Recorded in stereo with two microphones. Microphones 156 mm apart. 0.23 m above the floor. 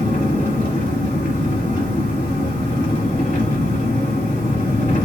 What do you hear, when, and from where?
0.0 s an engine running: 55° left (ahead or behind), 1.5 m